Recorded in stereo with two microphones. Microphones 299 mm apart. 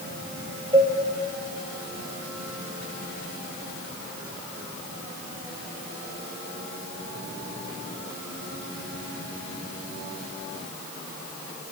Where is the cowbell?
20° right (ahead or behind), 3 m.